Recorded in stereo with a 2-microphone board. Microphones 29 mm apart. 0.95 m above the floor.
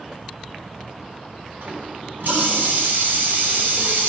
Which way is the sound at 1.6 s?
80° right.